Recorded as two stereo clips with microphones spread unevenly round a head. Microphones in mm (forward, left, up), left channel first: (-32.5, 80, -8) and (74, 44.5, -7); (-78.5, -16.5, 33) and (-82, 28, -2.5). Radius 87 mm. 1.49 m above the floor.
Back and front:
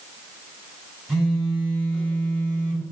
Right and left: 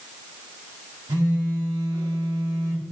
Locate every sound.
1.1 s a phone buzzing: 65° left, 1.6 m